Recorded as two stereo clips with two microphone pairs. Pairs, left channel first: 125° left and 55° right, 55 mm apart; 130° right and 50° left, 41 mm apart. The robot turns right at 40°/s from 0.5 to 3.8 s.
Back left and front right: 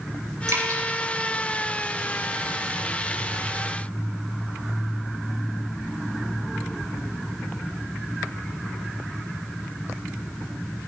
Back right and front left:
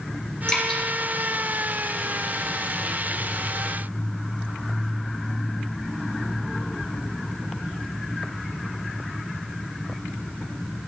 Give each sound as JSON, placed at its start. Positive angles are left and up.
{"t": 0.5, "sound": "dripping", "azimuth_deg": -65, "distance_m": 3.0}